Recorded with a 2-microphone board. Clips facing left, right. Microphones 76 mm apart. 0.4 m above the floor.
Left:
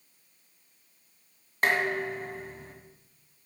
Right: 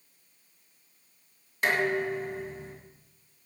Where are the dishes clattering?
50° left (ahead or behind), 1.9 m.